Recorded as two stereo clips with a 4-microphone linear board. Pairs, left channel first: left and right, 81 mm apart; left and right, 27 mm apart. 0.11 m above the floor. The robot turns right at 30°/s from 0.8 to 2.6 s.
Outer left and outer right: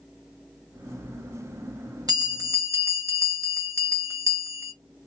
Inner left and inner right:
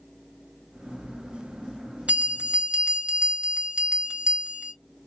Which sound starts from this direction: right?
A bell, at 2.1 s.